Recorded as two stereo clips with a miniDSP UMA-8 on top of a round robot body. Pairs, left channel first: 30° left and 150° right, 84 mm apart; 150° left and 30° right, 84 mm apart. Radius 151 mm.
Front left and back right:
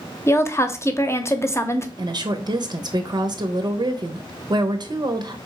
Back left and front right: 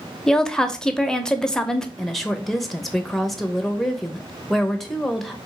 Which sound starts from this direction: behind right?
A woman speaking, at 2.0 s.